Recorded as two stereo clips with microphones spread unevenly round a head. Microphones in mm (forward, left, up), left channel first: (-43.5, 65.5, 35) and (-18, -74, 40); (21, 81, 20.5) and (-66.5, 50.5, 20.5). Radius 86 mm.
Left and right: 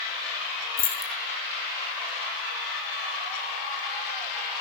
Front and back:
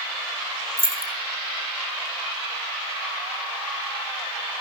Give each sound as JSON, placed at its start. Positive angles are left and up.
{"t": 0.8, "sound": "keys jangling", "azimuth_deg": 70, "distance_m": 2.0}